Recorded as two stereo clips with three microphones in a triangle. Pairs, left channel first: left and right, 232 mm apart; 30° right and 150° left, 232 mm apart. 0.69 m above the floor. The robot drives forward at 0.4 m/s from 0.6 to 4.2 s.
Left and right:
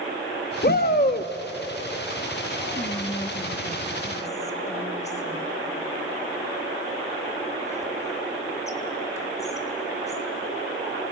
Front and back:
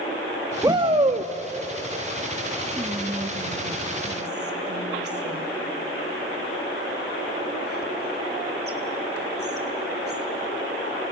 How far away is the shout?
About 0.6 m.